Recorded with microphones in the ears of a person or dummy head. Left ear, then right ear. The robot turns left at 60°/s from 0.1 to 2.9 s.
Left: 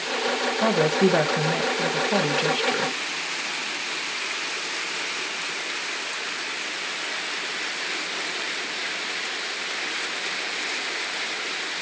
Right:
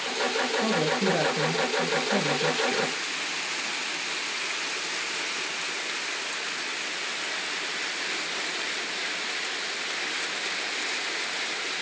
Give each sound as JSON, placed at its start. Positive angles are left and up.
{"t": 0.6, "sound": "a woman speaking", "azimuth_deg": 140, "distance_m": 1.0}